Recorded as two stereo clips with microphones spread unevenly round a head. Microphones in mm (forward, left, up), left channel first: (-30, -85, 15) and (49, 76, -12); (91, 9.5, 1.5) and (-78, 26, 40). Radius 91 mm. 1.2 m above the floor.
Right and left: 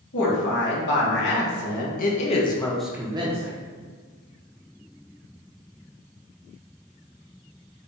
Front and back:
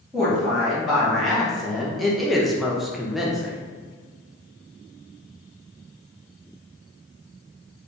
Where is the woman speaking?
90° right, 1.7 m; by 3.6 s 75° left, 0.7 m.